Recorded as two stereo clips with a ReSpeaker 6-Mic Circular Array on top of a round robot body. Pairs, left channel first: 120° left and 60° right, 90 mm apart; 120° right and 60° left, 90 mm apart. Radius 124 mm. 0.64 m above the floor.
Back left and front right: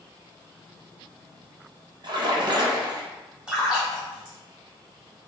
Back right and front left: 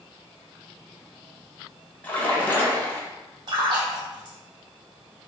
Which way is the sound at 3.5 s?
20° left.